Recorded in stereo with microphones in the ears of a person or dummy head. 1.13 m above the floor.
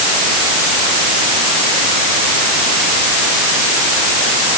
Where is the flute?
No flute in this recording.